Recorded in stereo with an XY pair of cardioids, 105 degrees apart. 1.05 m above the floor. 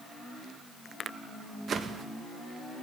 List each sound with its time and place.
1.7 s a whoosh: 50° right, 0.6 m